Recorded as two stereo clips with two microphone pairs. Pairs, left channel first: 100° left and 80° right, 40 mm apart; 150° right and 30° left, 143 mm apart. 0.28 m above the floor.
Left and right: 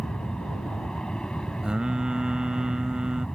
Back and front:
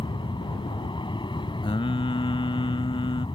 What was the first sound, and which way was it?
An aircraft, 165° left.